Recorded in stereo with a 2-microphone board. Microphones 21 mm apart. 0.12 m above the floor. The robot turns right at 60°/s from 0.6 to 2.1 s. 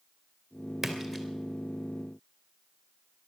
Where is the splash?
5° right (ahead or behind), 2 m; by 1.2 s 15° left (ahead or behind), 2 m.